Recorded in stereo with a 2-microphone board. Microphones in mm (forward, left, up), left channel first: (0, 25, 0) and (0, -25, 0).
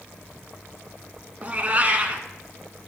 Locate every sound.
1.4 s a cat meowing: 35° right (ahead or behind), 0.9 m